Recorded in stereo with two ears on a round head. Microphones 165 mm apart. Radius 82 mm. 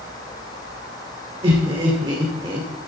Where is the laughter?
30° right (ahead or behind), 2 m.